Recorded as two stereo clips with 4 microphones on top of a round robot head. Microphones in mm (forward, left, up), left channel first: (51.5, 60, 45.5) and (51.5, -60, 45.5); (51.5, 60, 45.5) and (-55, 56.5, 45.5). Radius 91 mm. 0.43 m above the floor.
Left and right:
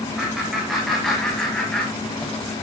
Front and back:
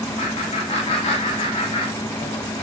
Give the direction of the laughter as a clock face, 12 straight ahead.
12 o'clock.